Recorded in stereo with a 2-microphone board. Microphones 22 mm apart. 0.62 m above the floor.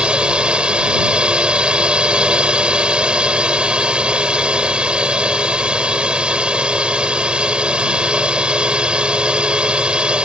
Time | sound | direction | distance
0.0 | a drone | 50° right (ahead or behind) | ?